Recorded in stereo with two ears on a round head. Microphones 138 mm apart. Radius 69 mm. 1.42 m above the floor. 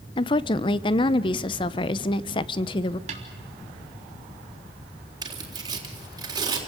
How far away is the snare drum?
About 3 m.